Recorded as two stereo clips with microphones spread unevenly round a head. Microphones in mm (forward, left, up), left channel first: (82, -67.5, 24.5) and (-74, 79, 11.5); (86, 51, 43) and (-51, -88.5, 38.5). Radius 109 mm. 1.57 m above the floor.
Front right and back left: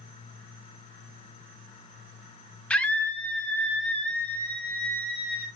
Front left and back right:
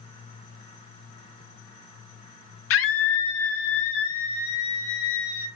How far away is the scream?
About 0.6 m.